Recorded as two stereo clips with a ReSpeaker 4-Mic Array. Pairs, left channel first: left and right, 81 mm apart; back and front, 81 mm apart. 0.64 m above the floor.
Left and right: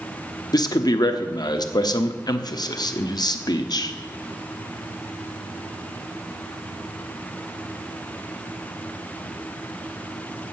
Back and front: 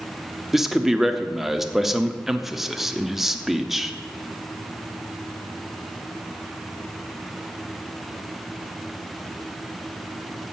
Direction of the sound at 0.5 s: 85° left.